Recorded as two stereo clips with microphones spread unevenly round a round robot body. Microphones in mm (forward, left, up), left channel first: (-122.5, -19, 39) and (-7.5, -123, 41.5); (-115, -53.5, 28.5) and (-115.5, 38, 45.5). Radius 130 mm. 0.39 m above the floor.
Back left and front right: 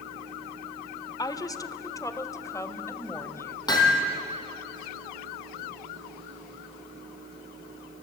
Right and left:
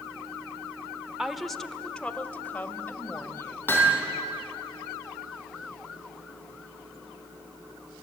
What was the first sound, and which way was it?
A woman speaking, 175° right.